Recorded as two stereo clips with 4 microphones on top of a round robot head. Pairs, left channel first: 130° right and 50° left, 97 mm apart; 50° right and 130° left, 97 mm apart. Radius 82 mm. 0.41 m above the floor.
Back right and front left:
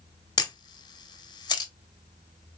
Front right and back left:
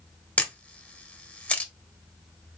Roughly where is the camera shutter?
Behind right.